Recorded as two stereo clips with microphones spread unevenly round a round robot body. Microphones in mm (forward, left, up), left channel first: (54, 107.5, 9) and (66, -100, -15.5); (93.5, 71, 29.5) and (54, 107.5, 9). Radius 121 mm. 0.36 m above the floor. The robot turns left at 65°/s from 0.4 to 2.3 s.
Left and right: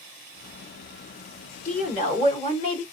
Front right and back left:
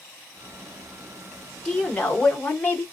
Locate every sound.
1.6 s a woman speaking: 85° left, 1.1 m; by 2.8 s 40° left, 1.1 m